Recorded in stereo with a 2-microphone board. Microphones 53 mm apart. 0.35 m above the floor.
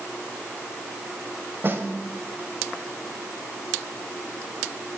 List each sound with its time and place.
1.6 s a snare drum: 40° right (ahead or behind), 1.9 m